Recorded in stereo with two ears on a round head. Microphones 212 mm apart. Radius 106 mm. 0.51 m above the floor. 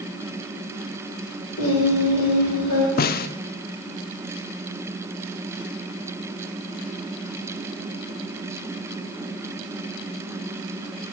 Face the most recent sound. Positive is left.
turn(degrees=35)  # may be behind; listen again after turning